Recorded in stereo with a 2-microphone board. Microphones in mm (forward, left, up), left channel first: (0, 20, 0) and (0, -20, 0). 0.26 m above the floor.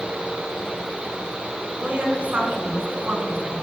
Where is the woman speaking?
30° right (ahead or behind), 3.5 m.